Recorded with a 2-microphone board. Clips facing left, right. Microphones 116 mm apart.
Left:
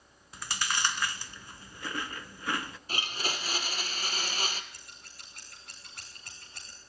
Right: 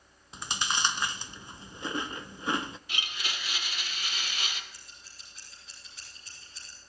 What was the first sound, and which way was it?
Chewing, 20° right (ahead or behind).